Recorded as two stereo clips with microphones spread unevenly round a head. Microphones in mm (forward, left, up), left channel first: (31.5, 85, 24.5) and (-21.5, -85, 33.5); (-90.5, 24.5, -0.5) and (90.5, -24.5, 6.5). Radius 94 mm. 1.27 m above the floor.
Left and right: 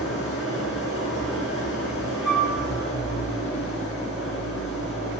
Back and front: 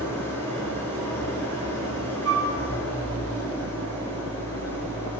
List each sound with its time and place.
0.0 s an engine running: 85° left, 6.5 m
2.2 s a flute: 25° right, 3.5 m